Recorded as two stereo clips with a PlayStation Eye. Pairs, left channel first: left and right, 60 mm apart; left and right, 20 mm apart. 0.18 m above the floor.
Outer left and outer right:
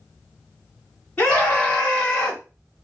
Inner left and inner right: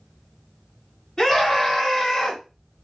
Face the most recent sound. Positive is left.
turn(degrees=5)  # may be behind; listen again after turning